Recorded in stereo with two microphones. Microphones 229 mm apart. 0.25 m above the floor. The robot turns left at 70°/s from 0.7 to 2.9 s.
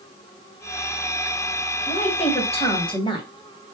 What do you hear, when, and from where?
1.9 s a woman speaking: 25° left (ahead or behind), 1.1 m; by 3.3 s 20° left (ahead or behind), 1.1 m